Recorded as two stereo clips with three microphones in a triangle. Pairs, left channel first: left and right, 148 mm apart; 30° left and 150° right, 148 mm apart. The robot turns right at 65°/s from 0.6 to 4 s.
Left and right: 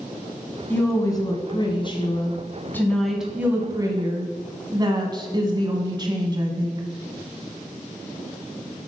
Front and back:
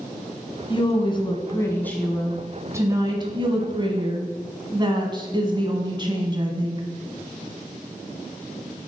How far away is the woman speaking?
About 1.3 m.